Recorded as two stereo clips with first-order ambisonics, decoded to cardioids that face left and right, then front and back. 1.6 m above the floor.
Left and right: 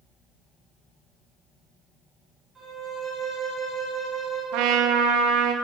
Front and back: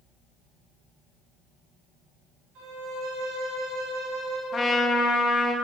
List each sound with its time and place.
2.5 s a violin: 165° right, 3 m
4.5 s a trumpet: 75° right, 0.7 m